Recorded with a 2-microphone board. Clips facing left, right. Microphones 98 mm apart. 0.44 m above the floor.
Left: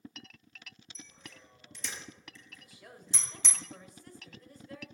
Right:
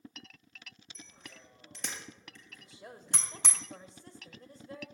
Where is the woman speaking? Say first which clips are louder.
Right 4 dB; 25° right (ahead or behind), 2 m.